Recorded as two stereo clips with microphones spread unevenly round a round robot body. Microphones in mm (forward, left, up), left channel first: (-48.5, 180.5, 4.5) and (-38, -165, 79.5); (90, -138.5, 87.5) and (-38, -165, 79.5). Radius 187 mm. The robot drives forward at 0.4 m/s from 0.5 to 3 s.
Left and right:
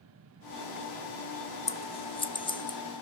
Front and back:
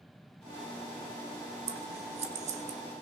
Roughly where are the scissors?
Behind left.